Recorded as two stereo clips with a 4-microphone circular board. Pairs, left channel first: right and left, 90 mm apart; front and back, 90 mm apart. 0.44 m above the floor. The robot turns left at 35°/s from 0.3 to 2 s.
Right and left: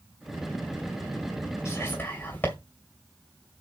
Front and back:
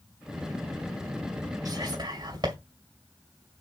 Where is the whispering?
145° right, 2.5 m; by 2.5 s 155° right, 2.5 m.